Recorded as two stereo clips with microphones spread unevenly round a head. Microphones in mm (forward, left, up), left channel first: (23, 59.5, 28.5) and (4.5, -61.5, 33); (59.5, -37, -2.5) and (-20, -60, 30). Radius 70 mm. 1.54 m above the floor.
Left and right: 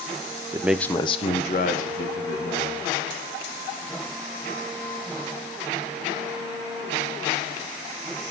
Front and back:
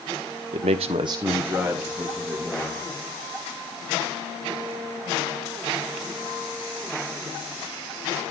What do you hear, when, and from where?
0.5 s a man speaking: 165° right, 0.7 m; by 2.8 s 100° left, 3 m